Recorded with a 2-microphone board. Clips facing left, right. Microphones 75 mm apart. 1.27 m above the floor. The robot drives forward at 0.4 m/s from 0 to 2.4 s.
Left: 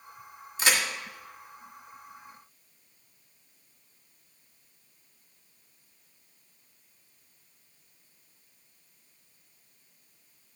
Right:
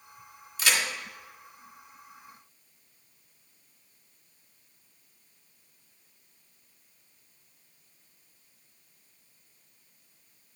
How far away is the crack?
About 1.4 m.